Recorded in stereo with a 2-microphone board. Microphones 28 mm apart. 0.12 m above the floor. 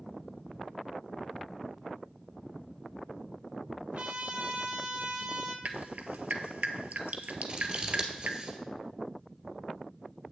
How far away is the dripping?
About 0.7 m.